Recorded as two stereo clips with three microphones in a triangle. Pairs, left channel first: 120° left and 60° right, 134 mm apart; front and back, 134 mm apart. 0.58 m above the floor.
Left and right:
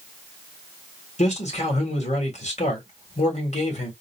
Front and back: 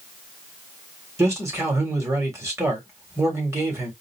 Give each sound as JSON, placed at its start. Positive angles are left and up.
{"t": 1.2, "sound": "a man speaking", "azimuth_deg": 115, "distance_m": 1.7}